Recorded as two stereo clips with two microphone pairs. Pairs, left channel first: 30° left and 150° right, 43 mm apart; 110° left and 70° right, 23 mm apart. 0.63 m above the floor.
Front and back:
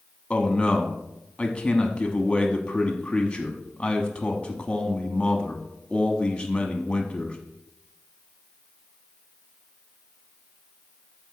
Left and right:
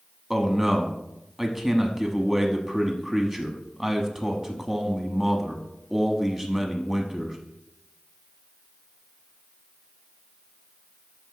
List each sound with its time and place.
0.3 s a man speaking: straight ahead, 1.0 m